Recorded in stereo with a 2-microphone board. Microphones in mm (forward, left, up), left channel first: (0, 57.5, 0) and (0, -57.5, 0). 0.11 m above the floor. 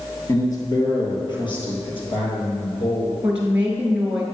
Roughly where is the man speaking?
Left.